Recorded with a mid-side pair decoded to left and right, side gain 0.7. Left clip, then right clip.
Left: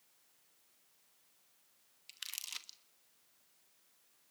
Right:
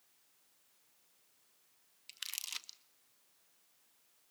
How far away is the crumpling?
About 1.2 m.